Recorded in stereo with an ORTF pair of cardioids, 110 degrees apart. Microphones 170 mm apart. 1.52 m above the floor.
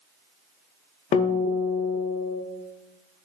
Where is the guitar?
50° left, 0.5 m.